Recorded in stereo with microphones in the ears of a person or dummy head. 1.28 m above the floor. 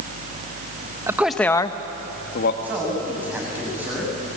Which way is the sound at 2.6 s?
5° right (ahead or behind).